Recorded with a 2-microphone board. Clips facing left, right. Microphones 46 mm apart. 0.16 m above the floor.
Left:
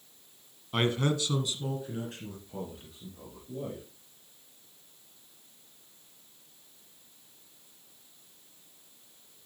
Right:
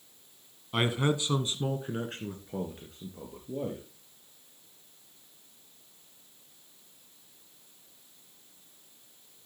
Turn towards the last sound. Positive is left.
turn(degrees=-50)  # may be behind; listen again after turning